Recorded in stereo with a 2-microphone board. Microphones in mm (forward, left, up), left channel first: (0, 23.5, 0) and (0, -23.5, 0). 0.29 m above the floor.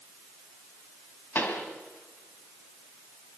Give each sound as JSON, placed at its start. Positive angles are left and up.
{"t": 1.4, "sound": "a pop", "side_deg": 40, "distance_m": 2.5}